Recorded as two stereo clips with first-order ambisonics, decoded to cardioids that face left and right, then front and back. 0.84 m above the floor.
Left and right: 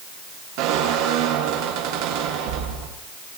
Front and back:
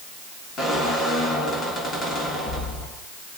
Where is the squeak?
70° right, 5 m.